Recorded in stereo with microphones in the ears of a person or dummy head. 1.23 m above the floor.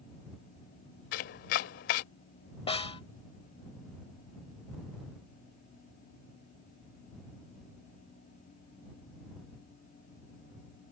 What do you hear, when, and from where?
1.1 s chopping: 50° left (ahead or behind)
2.7 s a snare drum: 30° left (ahead or behind)